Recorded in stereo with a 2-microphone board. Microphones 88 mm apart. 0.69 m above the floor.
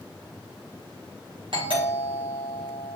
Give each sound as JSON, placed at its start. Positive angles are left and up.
{"t": 1.5, "sound": "a doorbell", "side_deg": -70, "distance_m": 6.0}